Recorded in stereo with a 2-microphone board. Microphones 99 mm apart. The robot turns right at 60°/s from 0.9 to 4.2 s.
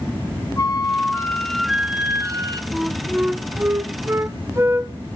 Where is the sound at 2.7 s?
Centre (ahead or behind), 0.5 m; by 5.0 s 25° right (ahead or behind), 0.5 m.